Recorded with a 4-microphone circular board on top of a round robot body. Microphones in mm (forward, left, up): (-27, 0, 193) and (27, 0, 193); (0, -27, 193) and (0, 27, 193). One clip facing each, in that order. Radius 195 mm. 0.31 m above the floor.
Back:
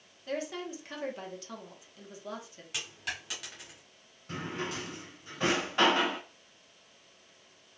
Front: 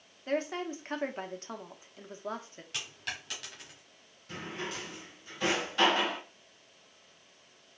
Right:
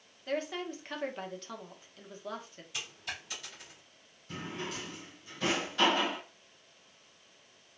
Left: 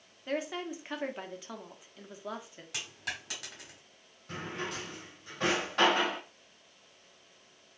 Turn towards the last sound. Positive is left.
turn(degrees=125)